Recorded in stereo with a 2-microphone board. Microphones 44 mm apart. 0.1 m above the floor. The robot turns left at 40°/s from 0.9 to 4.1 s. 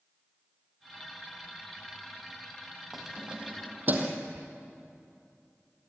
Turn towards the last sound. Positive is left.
turn(degrees=-45)  # may be behind; listen again after turning